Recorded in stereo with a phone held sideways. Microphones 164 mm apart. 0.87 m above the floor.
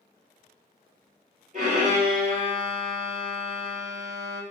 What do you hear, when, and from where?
1.5 s a violin: 50° right (ahead or behind), 3.5 m